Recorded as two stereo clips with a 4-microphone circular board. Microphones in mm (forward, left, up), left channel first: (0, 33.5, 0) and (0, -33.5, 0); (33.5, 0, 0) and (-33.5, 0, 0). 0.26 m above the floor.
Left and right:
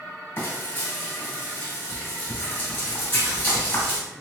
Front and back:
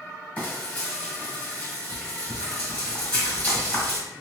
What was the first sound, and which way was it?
Frying, 55° left.